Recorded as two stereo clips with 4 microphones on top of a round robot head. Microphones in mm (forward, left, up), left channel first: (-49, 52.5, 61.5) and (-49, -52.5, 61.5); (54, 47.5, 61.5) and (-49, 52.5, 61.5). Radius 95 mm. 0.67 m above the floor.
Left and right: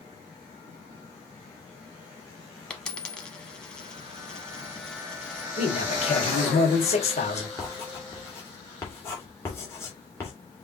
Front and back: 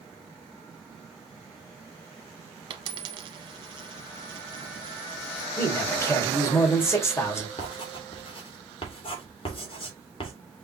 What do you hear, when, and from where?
2.7 s a dropped coin: 170° left, 0.6 m
5.6 s a man speaking: 60° left, 2.5 m
7.6 s writing: 25° left, 2 m